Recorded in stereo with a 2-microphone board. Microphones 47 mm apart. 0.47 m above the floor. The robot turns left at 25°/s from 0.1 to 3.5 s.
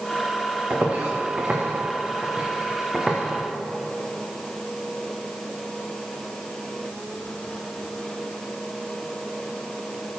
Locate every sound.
0.7 s footsteps: 45° right (ahead or behind), 3 m; by 3.2 s 15° right (ahead or behind), 3.5 m